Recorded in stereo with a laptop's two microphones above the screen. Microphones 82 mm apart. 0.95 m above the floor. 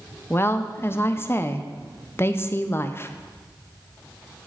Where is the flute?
No flute in this recording.